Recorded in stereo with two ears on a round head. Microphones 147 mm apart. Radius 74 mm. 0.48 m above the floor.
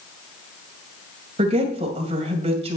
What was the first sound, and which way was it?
A woman speaking, 40° right (ahead or behind).